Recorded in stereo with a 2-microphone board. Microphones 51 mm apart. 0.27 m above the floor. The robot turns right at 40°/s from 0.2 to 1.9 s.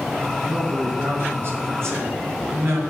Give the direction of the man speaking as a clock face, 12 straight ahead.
5 o'clock.